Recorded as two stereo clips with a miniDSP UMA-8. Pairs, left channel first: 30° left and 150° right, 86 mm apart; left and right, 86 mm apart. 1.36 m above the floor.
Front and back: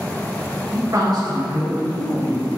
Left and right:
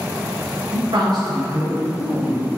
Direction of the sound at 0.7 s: 80° right.